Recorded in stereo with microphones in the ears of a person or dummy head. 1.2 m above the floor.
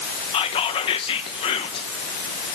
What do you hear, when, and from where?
0.3 s whispering: 35° left (ahead or behind), 1.1 m